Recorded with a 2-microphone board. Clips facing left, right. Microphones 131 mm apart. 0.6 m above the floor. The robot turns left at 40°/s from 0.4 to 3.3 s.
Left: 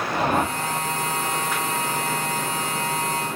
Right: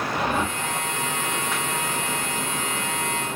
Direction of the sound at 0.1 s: 45° left (ahead or behind).